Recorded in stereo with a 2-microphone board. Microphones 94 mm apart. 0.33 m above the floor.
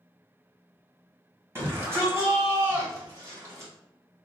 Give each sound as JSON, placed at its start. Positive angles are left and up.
{"t": 1.6, "sound": "a shout", "side_deg": -30, "distance_m": 1.9}